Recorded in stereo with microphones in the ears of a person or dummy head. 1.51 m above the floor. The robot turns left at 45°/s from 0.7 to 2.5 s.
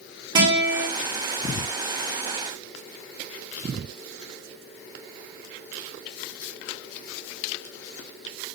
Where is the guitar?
25° right (ahead or behind), 2 m; by 0.9 s 20° right (ahead or behind), 2 m.